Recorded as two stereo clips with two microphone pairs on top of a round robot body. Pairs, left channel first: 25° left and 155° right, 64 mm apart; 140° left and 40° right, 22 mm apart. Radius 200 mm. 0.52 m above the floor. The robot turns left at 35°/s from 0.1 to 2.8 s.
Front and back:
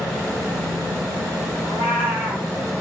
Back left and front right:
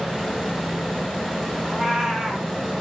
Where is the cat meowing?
45° left, 2 m; by 2.5 s 20° left, 2 m.